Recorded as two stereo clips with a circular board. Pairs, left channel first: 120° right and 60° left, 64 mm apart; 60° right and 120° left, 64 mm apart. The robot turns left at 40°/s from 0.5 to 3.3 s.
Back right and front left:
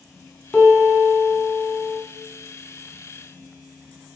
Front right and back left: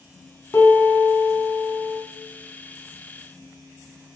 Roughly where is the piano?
Ahead right.